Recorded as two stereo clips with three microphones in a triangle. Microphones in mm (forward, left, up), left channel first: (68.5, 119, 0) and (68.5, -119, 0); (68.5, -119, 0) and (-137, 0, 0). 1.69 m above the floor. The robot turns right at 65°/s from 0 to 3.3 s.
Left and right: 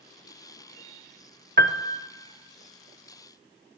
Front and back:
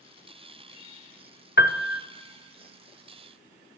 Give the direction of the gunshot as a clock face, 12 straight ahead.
I don't hear a gunshot.